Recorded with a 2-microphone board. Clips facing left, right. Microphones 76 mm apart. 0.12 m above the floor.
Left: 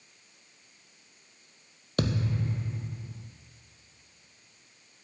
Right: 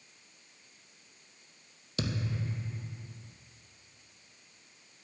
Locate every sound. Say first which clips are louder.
2.0 s a thud: left 6 dB; 50° left (ahead or behind), 0.7 m